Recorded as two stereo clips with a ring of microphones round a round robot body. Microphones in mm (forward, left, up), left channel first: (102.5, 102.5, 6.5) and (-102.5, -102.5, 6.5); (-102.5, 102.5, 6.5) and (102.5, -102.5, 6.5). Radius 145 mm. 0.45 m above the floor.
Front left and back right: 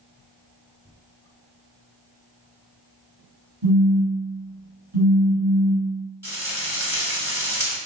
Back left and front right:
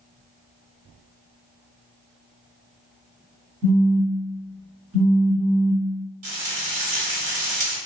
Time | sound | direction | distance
3.6 | a phone buzzing | 95° right | 1.5 m
6.2 | frying | 55° right | 1.3 m